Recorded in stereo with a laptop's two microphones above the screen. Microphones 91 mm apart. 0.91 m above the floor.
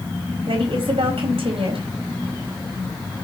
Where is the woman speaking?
85° right, 4 m.